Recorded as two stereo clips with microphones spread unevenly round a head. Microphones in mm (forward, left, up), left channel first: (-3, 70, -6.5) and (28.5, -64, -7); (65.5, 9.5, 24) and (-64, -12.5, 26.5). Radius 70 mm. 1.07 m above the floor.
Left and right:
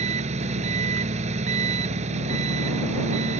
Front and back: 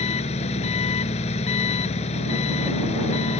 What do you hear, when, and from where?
0.0 s an engine running: 35° right